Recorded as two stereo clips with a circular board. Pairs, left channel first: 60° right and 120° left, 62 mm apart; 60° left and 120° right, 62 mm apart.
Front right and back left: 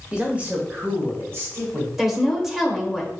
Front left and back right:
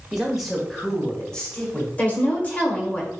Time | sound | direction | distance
0.1 | a man speaking | 175° left | 1.2 m
2.0 | a woman speaking | 40° left | 1.1 m